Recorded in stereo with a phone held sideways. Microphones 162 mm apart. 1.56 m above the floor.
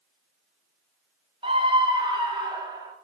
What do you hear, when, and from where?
1.4 s a scream: 35° right (ahead or behind), 0.8 m; by 2.9 s 25° right (ahead or behind), 1.7 m